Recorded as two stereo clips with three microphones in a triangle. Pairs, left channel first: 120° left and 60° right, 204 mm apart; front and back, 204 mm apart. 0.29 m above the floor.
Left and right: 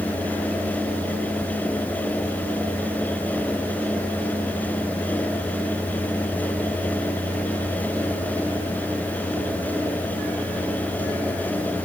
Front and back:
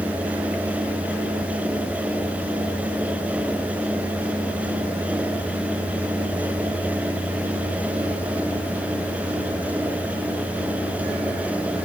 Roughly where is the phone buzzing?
No phone buzzing in this recording.